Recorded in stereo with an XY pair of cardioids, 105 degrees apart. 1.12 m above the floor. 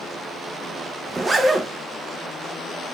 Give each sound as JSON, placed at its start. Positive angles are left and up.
{"t": 1.1, "sound": "a zipper", "azimuth_deg": -25, "distance_m": 0.6}